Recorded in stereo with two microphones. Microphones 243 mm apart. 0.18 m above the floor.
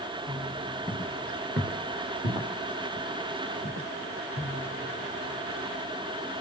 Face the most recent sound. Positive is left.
turn(degrees=-25)  # may be behind; listen again after turning